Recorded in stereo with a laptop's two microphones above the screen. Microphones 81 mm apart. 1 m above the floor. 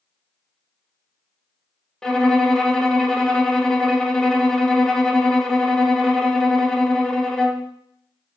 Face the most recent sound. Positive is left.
turn(degrees=10)  # may be behind; listen again after turning